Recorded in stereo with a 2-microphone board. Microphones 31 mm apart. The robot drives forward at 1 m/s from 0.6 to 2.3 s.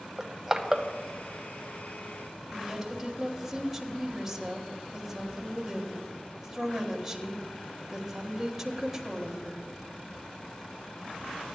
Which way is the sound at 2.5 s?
10° right (ahead or behind).